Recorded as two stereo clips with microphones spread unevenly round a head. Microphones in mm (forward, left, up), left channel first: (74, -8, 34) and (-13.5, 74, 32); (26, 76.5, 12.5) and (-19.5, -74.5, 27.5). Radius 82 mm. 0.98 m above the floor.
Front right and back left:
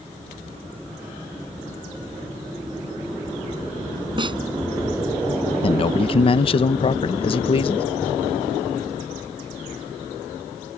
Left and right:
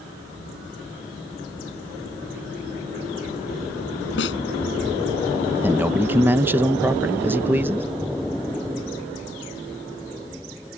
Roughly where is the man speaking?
Ahead right.